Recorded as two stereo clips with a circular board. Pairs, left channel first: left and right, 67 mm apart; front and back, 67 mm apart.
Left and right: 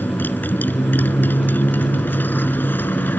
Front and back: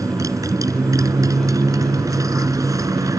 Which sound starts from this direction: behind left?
A motorcycle, at 0.0 s.